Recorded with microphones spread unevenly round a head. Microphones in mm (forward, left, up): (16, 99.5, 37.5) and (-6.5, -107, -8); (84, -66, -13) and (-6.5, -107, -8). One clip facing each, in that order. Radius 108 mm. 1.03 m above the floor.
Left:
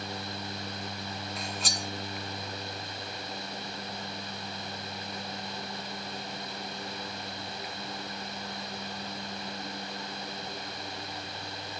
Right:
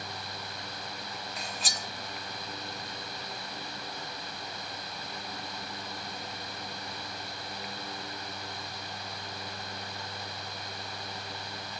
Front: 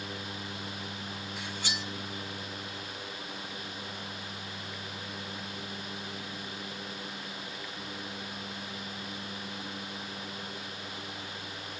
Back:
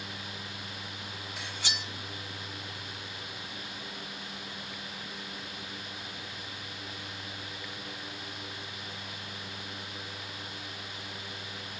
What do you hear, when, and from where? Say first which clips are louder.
1.4 s cutlery clinking: left 3 dB, front 1 dB; 170° left, 1.1 m